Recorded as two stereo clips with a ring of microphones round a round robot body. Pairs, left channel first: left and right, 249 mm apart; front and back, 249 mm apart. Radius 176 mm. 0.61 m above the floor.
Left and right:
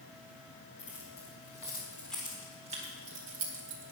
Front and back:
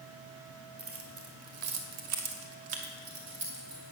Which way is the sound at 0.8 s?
145° left.